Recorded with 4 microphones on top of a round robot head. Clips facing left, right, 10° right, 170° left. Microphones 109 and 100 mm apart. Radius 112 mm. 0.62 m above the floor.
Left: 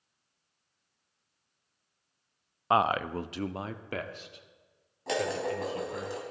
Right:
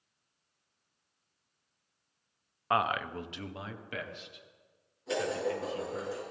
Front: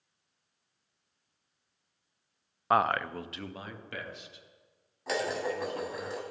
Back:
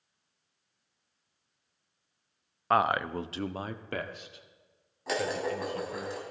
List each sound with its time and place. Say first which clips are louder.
2.7 s a man speaking: left 4 dB, back 1 dB; 70° left, 0.6 m; by 6.1 s 140° left, 3 m
5.1 s dishes clattering: left 1 dB, back 1 dB; 85° left, 3 m